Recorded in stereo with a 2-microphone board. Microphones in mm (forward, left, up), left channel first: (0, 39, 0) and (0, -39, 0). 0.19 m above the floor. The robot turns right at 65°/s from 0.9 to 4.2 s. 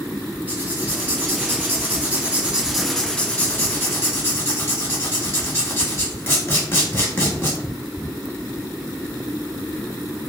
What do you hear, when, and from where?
0.5 s writing: 25° right (ahead or behind), 1.2 m; by 7.6 s 30° left (ahead or behind), 1.2 m